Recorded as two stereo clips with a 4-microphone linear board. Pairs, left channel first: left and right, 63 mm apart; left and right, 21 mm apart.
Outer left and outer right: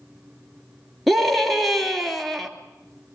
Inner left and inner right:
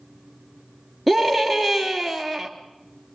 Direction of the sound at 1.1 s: Centre (ahead or behind).